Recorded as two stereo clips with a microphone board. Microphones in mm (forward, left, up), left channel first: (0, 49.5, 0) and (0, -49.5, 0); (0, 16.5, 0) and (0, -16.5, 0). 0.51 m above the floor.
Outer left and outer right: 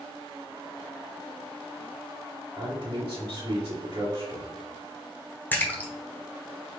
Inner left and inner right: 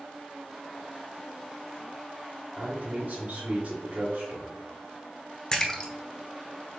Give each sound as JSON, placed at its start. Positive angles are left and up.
{"t": 2.6, "sound": "a man speaking", "side_deg": -50, "distance_m": 1.9}
{"t": 5.5, "sound": "a splash", "side_deg": 20, "distance_m": 0.8}